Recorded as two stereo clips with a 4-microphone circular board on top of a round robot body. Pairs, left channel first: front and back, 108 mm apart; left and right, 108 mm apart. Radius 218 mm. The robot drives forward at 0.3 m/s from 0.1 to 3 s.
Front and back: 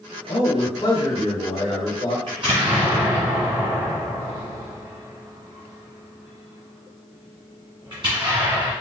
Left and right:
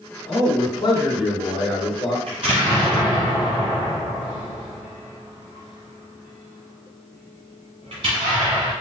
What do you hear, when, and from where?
0.3 s a man speaking: 40° left, 1.9 m; by 2.2 s 55° left, 1.5 m
2.3 s an explosion: 130° right, 1.5 m; by 8.7 s 135° right, 1.6 m